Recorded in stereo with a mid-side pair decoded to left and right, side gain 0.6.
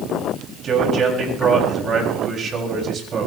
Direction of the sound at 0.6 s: 40° right.